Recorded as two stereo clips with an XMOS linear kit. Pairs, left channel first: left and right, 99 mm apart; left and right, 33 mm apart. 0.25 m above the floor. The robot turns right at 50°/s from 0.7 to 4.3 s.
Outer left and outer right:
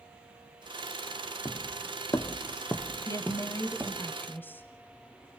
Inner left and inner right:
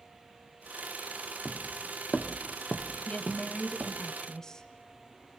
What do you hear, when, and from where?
1.4 s footsteps: 40° left (ahead or behind), 1.1 m; by 4.1 s 30° right (ahead or behind), 3.5 m
3.1 s a woman speaking: 85° left, 1.5 m; by 4.7 s 145° left, 1.5 m